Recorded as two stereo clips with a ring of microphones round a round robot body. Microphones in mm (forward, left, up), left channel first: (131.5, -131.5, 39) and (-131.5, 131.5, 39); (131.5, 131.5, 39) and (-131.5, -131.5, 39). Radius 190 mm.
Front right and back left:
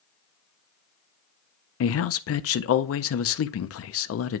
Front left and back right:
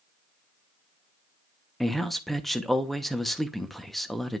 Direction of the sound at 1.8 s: 45° right.